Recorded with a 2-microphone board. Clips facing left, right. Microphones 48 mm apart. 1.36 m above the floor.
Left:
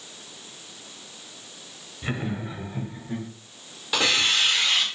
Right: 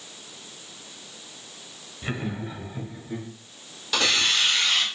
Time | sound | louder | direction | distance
2.0 | laughter | left 1 dB | centre (ahead or behind) | 1.2 m
3.9 | a hiss | left 1 dB | 15° left (ahead or behind) | 1.6 m